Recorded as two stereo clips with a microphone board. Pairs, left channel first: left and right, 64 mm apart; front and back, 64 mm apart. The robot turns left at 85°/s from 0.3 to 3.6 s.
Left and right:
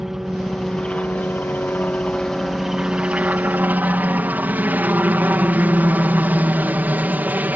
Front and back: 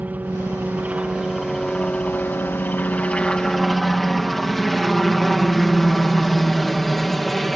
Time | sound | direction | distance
0.0 | a helicopter | 170° right | ?